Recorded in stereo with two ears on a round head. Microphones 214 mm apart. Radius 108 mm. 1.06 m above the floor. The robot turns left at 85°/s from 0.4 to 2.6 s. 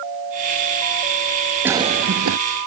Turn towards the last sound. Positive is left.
turn(degrees=-90)